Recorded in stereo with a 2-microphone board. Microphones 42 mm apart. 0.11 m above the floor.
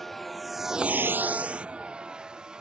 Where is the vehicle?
10° left (ahead or behind); by 2.6 s 25° right (ahead or behind).